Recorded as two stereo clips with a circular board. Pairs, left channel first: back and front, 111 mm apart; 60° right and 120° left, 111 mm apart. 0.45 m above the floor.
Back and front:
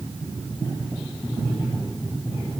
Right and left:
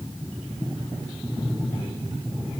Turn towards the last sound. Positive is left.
No sound to turn to.